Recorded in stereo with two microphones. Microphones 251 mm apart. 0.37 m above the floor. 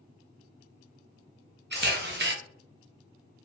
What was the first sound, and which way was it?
A camera shutter, 45° right (ahead or behind).